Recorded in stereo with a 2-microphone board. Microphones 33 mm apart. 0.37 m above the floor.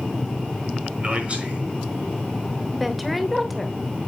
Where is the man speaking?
40° right (ahead or behind), 6 m.